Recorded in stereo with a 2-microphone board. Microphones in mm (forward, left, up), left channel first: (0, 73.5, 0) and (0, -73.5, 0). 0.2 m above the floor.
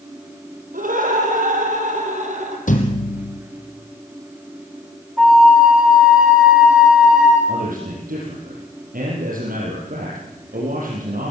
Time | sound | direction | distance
0.7 | laughter | 70° right (ahead or behind) | 6.5 m
2.7 | a thud | 65° left (ahead or behind) | 3 m
5.2 | a flute | centre (ahead or behind) | 7 m
7.5 | a man speaking | 80° right | 7 m